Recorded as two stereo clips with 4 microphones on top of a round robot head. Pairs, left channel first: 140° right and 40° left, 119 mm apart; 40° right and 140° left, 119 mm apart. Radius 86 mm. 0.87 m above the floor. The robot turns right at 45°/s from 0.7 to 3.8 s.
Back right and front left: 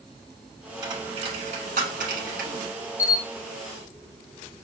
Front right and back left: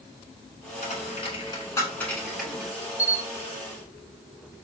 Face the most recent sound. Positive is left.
turn(degrees=-125)